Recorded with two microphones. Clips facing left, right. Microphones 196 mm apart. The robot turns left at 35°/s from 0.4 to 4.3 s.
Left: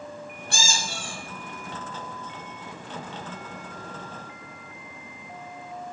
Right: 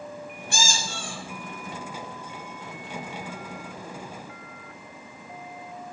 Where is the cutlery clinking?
No cutlery clinking in this recording.